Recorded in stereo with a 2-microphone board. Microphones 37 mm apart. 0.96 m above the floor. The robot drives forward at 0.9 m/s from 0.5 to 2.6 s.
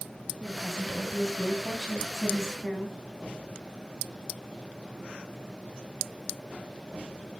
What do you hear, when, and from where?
0.4 s a woman speaking: 15° right (ahead or behind), 5.5 m; by 3.0 s 10° right (ahead or behind), 7.5 m